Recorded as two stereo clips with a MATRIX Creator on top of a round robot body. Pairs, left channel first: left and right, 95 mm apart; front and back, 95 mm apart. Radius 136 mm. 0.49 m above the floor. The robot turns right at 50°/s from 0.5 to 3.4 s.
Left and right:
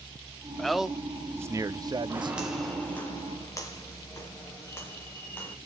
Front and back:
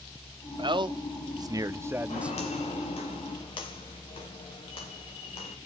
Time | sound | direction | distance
0.6 | a man speaking | 175° left | 0.9 m
2.1 | footsteps | 25° right | 5 m